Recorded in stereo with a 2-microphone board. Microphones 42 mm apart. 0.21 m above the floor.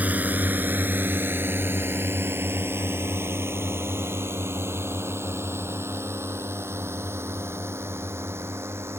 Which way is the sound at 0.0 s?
40° right (ahead or behind).